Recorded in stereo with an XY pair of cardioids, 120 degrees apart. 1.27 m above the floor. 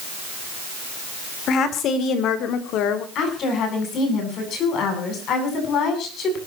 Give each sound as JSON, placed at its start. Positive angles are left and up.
{"t": 1.5, "sound": "a woman speaking", "azimuth_deg": 60, "distance_m": 3.5}
{"t": 3.1, "sound": "a woman speaking", "azimuth_deg": 60, "distance_m": 9.0}